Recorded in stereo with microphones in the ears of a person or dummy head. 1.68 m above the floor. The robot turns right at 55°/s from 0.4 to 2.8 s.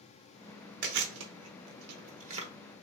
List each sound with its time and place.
0.8 s chewing: 50° right (ahead or behind), 0.9 m; by 2.5 s 35° right (ahead or behind), 0.9 m